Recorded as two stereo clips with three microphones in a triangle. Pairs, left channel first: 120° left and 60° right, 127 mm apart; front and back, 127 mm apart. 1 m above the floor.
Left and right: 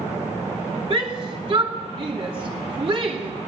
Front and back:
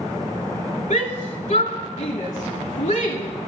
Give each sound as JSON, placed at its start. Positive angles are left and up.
{"t": 0.9, "sound": "a shout", "azimuth_deg": -15, "distance_m": 2.5}